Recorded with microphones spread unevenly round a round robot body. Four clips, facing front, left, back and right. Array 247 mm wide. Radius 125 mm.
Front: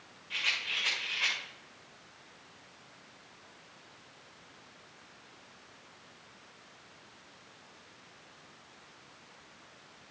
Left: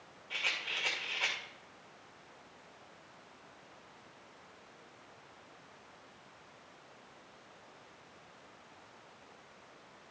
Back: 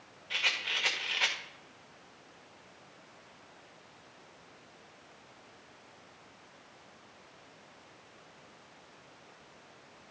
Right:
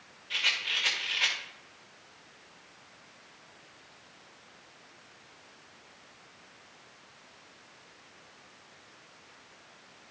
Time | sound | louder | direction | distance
0.3 | a rattle | right 5 dB, back 2 dB | 165° left | 1.7 m